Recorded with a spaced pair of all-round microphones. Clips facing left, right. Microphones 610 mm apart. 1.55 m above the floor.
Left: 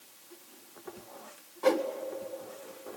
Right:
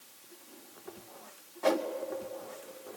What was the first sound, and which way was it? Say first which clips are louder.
A whoosh: left 3 dB; 5° right (ahead or behind).